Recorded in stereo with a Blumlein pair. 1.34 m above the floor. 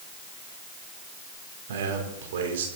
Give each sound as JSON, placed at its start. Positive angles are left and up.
{"t": 1.7, "sound": "a man speaking", "azimuth_deg": -60, "distance_m": 3.5}